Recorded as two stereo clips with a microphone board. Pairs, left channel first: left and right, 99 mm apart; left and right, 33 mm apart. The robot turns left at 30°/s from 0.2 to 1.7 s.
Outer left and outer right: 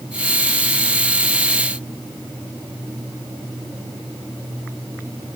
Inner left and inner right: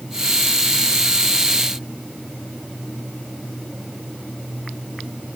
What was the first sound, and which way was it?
Only background noise.